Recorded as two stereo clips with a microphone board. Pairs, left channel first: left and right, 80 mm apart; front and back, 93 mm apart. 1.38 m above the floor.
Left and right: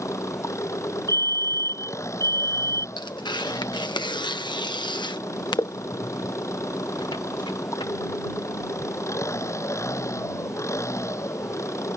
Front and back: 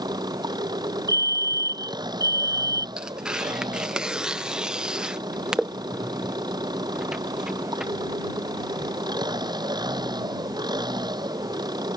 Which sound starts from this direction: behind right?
A fire alarm, at 1.1 s.